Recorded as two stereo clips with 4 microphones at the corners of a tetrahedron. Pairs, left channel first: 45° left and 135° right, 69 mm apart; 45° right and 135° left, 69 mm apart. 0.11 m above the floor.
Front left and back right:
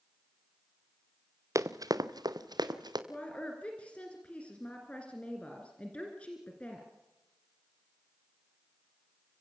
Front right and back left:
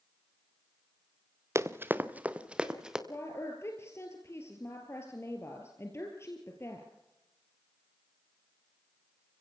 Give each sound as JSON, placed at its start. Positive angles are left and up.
{"t": 1.6, "sound": "running footsteps", "azimuth_deg": -175, "distance_m": 1.0}
{"t": 3.1, "sound": "a woman speaking", "azimuth_deg": -20, "distance_m": 2.0}